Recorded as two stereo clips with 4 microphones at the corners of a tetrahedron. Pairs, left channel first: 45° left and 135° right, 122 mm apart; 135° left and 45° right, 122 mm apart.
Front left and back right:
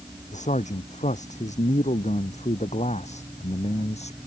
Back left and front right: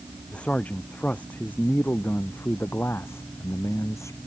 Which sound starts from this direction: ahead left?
A man speaking, at 0.3 s.